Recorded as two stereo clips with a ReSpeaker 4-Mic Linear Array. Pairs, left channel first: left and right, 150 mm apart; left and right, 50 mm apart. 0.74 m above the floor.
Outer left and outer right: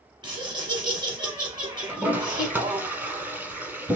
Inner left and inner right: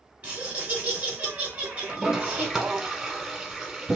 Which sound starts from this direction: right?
Laughter, at 0.2 s.